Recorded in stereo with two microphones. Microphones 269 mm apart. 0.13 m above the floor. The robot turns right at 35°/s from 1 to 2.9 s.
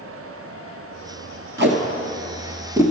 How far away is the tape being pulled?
About 1.5 m.